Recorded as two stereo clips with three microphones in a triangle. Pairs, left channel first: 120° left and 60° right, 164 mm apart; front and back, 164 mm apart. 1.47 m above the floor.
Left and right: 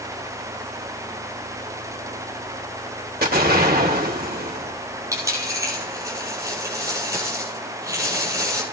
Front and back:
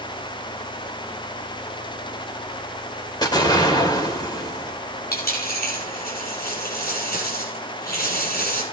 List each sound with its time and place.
3.2 s an explosion: 65° right, 2.5 m
5.1 s a dropped coin: 10° left, 6 m